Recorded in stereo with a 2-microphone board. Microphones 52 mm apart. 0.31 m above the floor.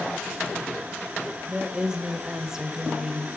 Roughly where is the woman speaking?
Centre.